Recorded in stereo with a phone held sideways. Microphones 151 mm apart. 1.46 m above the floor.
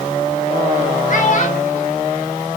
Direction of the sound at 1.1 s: 55° left (ahead or behind).